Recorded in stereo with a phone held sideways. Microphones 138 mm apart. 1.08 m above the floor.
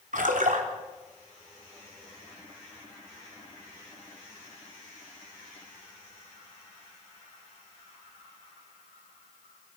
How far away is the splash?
About 3 m.